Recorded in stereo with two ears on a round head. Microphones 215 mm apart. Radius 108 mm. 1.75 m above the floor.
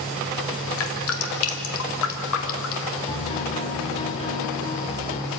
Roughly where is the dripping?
Left.